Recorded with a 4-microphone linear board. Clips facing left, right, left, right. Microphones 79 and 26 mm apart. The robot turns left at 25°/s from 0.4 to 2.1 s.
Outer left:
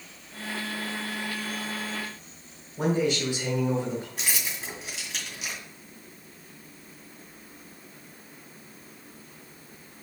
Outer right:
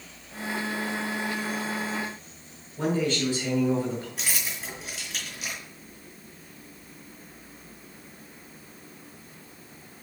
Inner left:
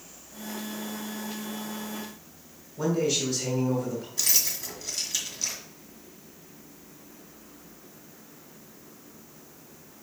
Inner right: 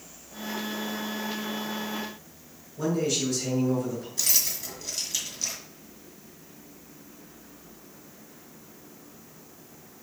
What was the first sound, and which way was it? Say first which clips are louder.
A man speaking: outer left 1 dB, inner left 1 dB; 15° left (ahead or behind).